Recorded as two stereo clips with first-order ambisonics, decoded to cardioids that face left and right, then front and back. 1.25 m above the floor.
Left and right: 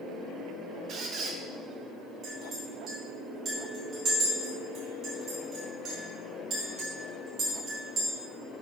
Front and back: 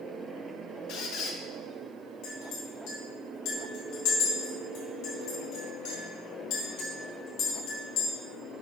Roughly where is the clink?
Ahead right.